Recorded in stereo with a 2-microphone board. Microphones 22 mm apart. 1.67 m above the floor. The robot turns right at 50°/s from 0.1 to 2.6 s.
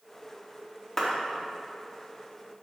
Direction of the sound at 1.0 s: 10° left (ahead or behind).